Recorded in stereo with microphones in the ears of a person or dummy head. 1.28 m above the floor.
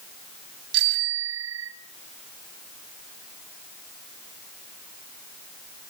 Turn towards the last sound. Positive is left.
turn(degrees=-85)